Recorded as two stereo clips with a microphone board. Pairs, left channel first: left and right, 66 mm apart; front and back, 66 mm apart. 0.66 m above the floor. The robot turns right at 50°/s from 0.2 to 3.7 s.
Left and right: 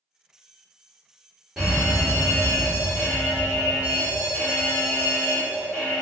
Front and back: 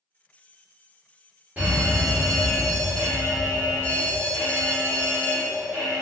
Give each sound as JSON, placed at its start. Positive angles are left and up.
{"t": 1.6, "sound": "a fire alarm", "azimuth_deg": -155, "distance_m": 1.6}